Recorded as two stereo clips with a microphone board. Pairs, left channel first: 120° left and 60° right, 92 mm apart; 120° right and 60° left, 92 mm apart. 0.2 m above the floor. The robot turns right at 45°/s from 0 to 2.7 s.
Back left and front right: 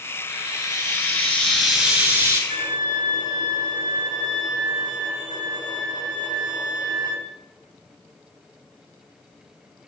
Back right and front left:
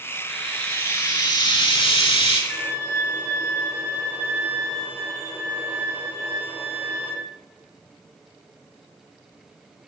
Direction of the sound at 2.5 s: 10° right.